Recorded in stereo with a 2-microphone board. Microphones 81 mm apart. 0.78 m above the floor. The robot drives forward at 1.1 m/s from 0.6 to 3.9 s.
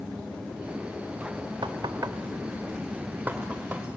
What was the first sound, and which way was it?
Knocking, 70° right (ahead or behind).